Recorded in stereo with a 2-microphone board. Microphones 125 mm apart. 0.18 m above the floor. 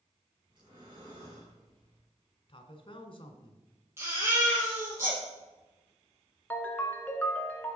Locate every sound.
0.5 s breathing: 40° right (ahead or behind), 3.5 m
2.5 s a man speaking: 45° left (ahead or behind), 1.4 m
4.0 s a baby crying: 20° right (ahead or behind), 4 m
6.5 s a ringtone: 15° left (ahead or behind), 1.0 m